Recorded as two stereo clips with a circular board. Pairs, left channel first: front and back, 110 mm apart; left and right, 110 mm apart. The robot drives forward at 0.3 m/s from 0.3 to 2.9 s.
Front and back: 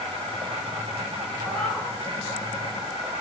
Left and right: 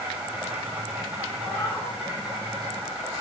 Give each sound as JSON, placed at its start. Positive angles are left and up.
{"t": 0.0, "sound": "an insect", "azimuth_deg": -160, "distance_m": 0.9}
{"t": 1.4, "sound": "a cat meowing", "azimuth_deg": 65, "distance_m": 0.6}